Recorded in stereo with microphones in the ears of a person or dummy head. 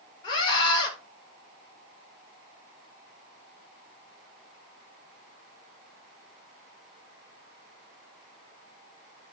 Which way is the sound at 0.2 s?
25° left (ahead or behind).